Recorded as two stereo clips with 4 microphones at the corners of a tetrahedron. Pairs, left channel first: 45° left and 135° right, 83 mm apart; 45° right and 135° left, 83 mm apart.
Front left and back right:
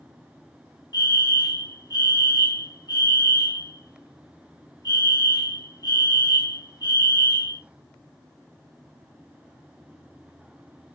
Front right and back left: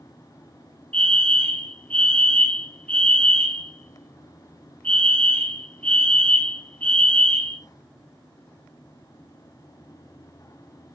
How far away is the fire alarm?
About 3.5 m.